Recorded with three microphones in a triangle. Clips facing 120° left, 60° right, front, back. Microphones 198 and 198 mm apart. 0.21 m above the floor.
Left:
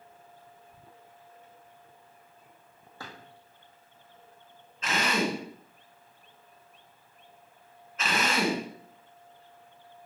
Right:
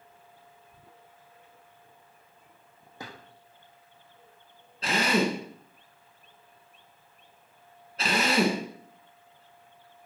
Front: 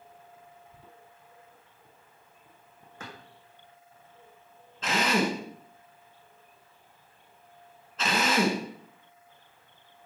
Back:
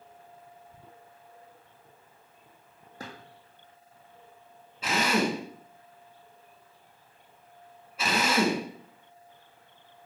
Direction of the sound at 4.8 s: 105° right.